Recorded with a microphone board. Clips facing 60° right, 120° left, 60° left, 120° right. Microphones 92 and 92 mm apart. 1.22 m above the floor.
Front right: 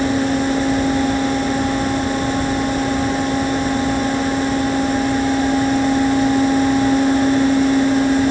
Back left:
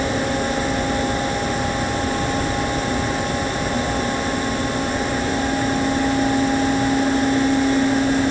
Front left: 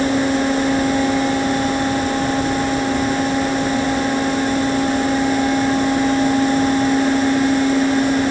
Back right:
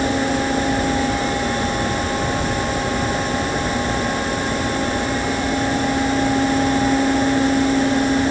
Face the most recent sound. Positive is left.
No sound to turn to.